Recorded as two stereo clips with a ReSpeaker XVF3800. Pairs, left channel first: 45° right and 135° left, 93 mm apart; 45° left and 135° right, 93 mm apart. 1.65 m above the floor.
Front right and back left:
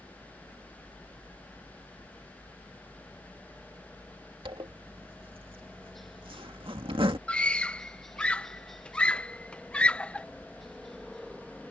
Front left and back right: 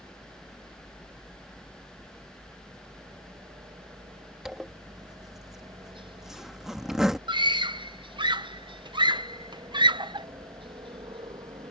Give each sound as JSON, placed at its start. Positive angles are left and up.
{"t": 0.0, "sound": "a helicopter", "azimuth_deg": -135}
{"t": 4.5, "sound": "a zipper", "azimuth_deg": 140}
{"t": 7.3, "sound": "a scream", "azimuth_deg": -120}